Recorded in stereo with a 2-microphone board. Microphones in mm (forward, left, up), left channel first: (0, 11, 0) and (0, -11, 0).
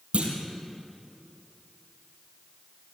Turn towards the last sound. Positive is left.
turn(degrees=-65)  # may be behind; listen again after turning